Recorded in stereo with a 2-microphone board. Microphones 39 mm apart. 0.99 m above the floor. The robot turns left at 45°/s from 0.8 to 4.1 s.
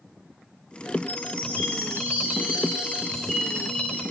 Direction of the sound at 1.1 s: 80° right.